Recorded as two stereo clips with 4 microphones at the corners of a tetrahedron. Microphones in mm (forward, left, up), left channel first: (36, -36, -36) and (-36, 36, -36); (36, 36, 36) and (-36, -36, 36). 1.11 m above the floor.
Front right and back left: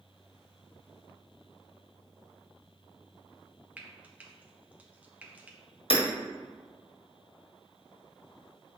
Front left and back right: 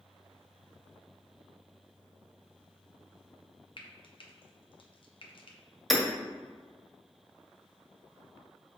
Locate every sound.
3.8 s frying: 65° left, 0.9 m
5.9 s hammering: 45° right, 1.5 m